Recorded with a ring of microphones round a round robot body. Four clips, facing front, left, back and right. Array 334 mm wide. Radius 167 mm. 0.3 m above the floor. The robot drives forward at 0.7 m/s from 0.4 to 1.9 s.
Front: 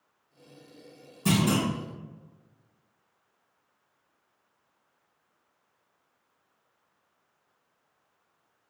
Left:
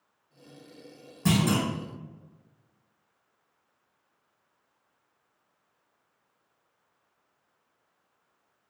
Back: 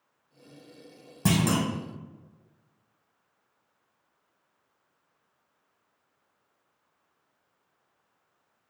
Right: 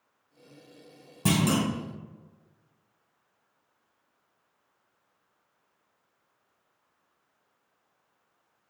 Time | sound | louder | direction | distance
1.2 | a clunk | even, even | 160° right | 1.4 m